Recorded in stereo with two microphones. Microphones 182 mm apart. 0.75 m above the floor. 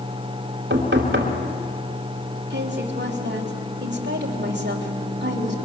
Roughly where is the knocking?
Right.